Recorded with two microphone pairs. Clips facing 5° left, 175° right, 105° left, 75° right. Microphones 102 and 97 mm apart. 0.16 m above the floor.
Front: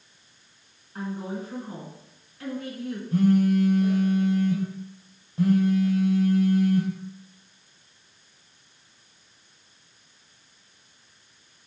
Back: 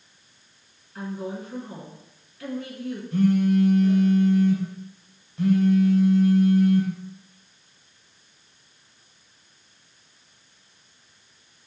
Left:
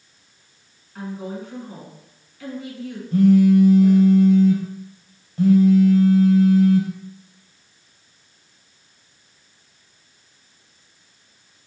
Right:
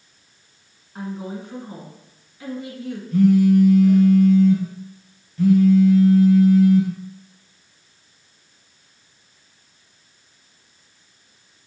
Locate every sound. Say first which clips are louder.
0.9 s a woman speaking: even, even; 25° right, 1.9 m
3.1 s a phone buzzing: even, left 1 dB; 50° left, 2 m